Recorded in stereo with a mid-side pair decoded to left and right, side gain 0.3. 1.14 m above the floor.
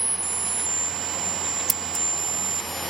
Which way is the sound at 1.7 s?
10° right.